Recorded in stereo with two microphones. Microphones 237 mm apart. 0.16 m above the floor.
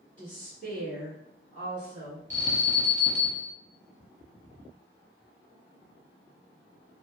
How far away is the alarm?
About 1.3 m.